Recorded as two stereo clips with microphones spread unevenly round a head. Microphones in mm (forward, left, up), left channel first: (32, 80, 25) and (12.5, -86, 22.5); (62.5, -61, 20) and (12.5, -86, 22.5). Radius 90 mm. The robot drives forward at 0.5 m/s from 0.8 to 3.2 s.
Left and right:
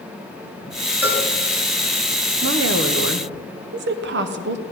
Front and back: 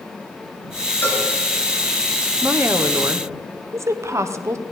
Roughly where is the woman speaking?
Right.